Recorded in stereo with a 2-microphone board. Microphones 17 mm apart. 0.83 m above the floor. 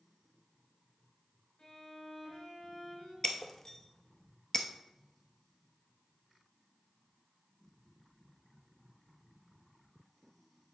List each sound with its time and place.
1.6 s a violin: 70° left (ahead or behind), 4 m
3.2 s breaking glass: 25° left (ahead or behind), 0.9 m